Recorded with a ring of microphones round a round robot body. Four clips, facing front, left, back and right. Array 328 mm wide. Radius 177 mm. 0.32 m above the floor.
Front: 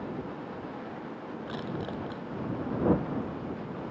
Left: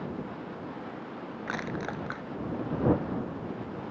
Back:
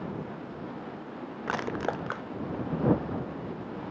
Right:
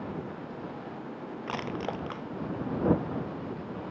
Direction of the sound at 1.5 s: 165° right.